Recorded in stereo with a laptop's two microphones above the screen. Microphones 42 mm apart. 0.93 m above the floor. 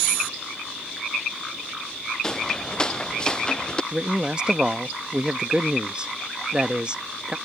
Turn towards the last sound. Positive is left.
turn(degrees=-30)  # may be behind; listen again after turning